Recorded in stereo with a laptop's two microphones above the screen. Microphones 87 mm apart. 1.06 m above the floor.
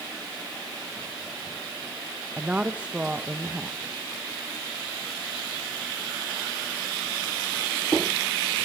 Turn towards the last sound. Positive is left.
turn(degrees=-15)  # may be behind; listen again after turning